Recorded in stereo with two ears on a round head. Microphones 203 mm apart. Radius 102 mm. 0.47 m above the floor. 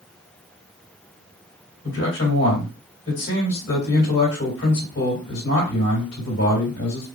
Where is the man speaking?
60° left (ahead or behind), 3 m.